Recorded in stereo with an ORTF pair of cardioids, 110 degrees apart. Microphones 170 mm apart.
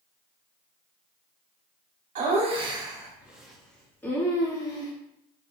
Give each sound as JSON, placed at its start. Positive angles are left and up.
{"t": 2.1, "sound": "laughter", "azimuth_deg": -50, "distance_m": 1.3}